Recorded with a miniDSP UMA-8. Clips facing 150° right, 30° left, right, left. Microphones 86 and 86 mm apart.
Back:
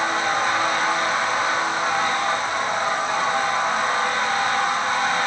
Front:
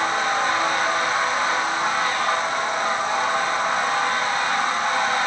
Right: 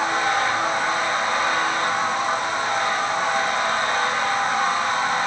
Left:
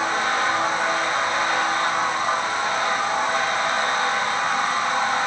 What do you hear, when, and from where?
Only background noise.